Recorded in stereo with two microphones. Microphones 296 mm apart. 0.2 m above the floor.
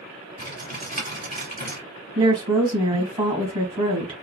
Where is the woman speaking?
15° right (ahead or behind), 1.3 m.